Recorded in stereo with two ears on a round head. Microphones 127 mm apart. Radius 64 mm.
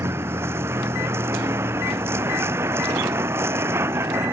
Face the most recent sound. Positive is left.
turn(degrees=-20)  # may be behind; listen again after turning